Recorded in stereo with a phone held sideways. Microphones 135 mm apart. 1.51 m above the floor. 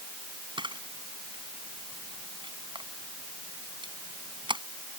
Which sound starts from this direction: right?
A camera shutter, at 0.6 s.